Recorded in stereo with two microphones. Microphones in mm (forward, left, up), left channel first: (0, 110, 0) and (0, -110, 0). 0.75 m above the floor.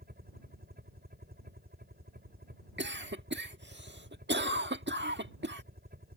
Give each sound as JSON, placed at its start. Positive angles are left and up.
{"t": 0.0, "sound": "a helicopter", "side_deg": -45}
{"t": 2.8, "sound": "a cough", "side_deg": -55}